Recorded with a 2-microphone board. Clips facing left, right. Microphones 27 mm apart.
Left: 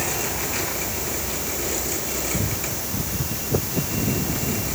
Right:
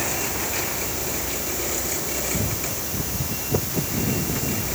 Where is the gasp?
No gasp in this recording.